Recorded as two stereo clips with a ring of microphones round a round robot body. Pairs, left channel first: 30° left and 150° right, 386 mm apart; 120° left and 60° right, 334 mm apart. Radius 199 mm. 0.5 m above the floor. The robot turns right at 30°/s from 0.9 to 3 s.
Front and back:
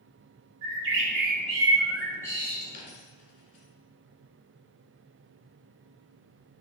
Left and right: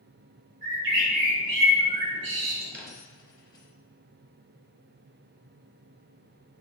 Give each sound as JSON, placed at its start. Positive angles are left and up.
{"t": 0.6, "sound": "a bird", "azimuth_deg": -95, "distance_m": 1.9}
{"t": 2.7, "sound": "a dropped coin", "azimuth_deg": 35, "distance_m": 2.0}